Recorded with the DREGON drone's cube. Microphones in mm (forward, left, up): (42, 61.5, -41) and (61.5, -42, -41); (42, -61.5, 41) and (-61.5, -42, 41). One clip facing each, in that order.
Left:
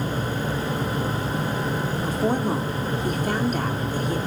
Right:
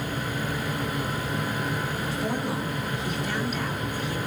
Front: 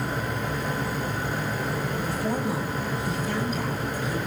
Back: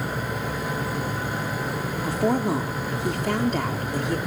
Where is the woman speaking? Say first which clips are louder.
Left 5 dB, back 8 dB; 150° left, 4 m.